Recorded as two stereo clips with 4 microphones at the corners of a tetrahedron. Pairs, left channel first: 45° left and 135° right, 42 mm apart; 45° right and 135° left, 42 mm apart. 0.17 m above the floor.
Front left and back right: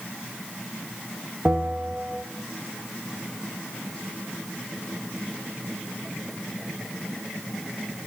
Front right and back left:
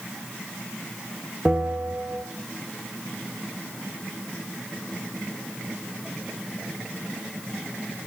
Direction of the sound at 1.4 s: 170° right.